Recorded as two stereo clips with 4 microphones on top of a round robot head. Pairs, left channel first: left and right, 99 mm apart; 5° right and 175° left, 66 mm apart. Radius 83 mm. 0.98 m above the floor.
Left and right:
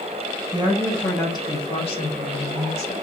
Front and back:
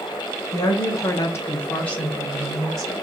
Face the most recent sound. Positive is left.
turn(degrees=85)